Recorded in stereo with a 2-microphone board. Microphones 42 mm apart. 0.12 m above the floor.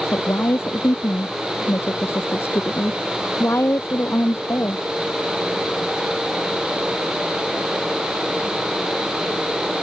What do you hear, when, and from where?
0.1 s a woman speaking: 70° left (ahead or behind)